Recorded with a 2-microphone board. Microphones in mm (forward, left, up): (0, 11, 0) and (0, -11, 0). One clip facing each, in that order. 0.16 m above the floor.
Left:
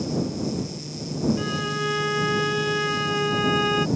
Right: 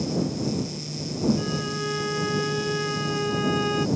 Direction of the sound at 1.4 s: 25° left (ahead or behind).